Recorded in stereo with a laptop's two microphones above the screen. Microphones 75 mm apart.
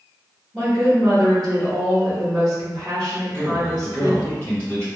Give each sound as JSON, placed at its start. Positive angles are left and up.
{"t": 0.5, "sound": "a woman speaking", "side_deg": -50, "distance_m": 1.2}
{"t": 3.3, "sound": "a man speaking", "side_deg": 20, "distance_m": 1.2}